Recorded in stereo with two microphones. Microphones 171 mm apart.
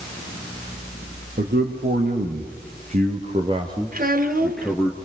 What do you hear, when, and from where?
1.4 s a man speaking: 65° right (ahead or behind), 3 m; by 4.9 s 15° left (ahead or behind), 1.8 m
3.9 s a child speaking: 50° right (ahead or behind), 2.0 m